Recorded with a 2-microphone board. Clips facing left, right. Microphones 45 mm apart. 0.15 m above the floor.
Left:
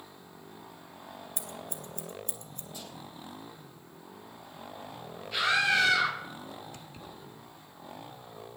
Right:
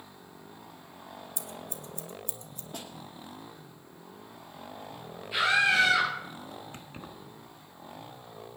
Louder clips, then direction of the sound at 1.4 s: Left 1 dB; 50° left (ahead or behind).